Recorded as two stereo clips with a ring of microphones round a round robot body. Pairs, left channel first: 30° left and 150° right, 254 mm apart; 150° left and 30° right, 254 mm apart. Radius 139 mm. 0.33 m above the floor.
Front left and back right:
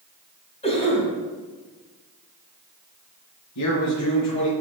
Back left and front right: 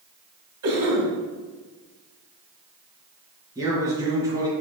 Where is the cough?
35° right, 3 m.